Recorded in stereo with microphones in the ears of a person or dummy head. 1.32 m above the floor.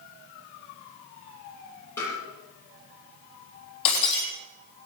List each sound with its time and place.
2.0 s tapping: 20° left (ahead or behind), 9.5 m
3.9 s breaking glass: 70° left (ahead or behind), 4 m